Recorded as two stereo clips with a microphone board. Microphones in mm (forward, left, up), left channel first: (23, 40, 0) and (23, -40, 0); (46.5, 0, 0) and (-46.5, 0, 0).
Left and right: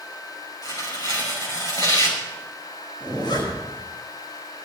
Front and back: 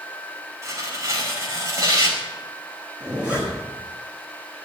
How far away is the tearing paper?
About 5.5 m.